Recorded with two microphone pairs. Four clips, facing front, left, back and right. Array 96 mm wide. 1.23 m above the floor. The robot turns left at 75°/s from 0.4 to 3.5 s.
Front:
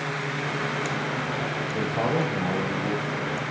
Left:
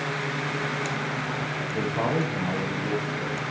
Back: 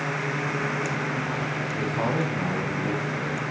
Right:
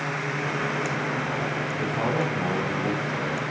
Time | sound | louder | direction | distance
1.7 | a man speaking | left 2 dB, front 2 dB | 25° left | 9 m